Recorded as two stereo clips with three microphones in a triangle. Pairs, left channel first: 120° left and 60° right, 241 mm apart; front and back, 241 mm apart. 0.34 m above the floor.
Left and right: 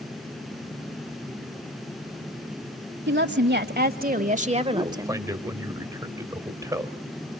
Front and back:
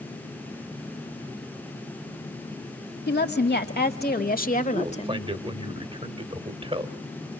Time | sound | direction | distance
3.1 | a woman speaking | 35° right | 1.8 m
4.7 | a man speaking | 130° right | 1.2 m